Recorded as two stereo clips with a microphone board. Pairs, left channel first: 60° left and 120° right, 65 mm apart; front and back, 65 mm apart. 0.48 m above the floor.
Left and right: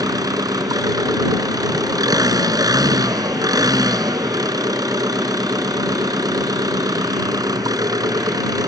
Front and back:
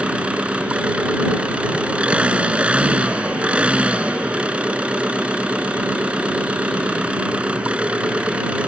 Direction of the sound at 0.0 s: 105° right.